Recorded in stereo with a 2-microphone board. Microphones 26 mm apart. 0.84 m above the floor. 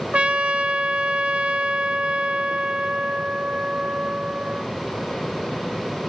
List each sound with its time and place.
0.1 s a trumpet: 45° right (ahead or behind), 0.7 m